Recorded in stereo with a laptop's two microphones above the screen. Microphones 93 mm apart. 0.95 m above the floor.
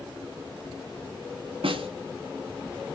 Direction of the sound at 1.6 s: 75° right (ahead or behind).